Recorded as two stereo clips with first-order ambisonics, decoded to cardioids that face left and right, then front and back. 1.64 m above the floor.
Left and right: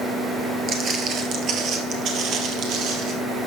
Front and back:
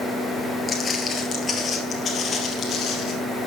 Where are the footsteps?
65° right, 1.8 m; by 3.1 s 60° right, 3 m.